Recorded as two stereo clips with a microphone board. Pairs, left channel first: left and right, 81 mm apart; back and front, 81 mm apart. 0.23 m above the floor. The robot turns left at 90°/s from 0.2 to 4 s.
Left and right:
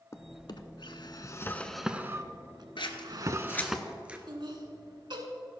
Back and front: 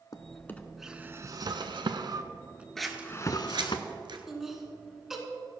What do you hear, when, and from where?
0.1 s a drawer: 140° left, 0.6 m; by 3.8 s straight behind, 0.6 m
2.8 s scissors: 95° left, 1.1 m; by 4.2 s 15° right, 1.1 m
4.3 s laughter: 85° right, 2 m